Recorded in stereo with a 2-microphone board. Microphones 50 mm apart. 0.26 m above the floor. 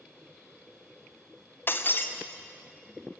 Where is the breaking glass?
45° left (ahead or behind), 2.5 m.